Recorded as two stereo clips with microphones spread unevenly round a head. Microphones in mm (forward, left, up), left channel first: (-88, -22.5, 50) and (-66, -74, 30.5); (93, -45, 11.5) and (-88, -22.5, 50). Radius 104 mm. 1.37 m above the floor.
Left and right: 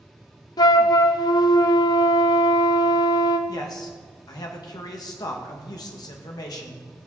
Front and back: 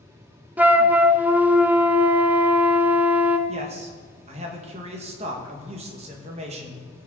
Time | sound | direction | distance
0.6 | a flute | 90° left | 0.5 m
3.5 | a man speaking | 110° left | 2 m